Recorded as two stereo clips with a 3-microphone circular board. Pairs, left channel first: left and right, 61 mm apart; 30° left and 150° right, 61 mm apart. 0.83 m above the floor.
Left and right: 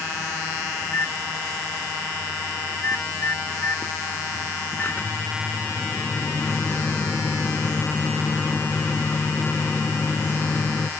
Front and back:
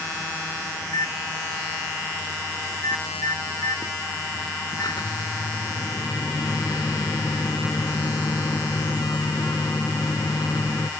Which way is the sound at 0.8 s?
35° left.